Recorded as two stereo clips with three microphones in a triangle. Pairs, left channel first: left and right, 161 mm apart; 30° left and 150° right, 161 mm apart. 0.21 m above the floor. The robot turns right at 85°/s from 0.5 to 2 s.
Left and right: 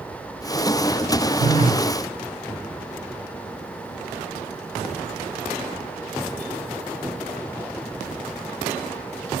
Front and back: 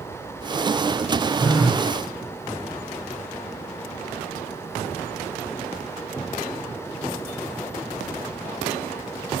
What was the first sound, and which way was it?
A phone buzzing, 75° right.